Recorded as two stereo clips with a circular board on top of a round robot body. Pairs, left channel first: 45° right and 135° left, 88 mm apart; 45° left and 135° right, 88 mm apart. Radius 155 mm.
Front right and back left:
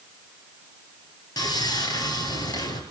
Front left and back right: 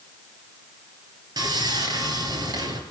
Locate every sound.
1.4 s sawing: 90° right, 3.5 m